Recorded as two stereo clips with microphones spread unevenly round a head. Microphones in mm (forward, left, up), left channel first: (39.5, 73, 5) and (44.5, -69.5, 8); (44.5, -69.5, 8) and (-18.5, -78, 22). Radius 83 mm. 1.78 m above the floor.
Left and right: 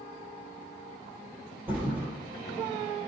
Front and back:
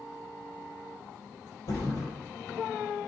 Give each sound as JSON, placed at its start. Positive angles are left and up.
{"t": 1.7, "sound": "a thud", "azimuth_deg": -10, "distance_m": 4.0}